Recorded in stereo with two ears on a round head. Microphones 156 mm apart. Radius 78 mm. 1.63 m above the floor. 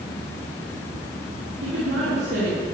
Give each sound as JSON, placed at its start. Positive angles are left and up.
{"t": 1.6, "sound": "a woman speaking", "side_deg": -75, "distance_m": 3.5}